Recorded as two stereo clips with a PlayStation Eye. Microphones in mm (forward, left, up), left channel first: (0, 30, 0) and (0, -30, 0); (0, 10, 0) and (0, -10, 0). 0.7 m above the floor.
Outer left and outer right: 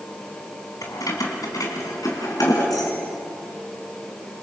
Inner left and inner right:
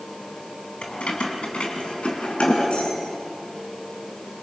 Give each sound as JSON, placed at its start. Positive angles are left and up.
{"t": 0.8, "sound": "keys jangling", "side_deg": 75, "distance_m": 4.0}